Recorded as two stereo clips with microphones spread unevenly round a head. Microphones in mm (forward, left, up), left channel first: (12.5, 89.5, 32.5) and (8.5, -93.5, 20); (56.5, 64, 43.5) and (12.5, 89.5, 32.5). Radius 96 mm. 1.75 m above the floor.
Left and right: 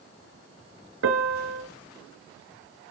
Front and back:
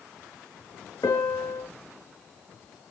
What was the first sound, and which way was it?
A piano, 80° right.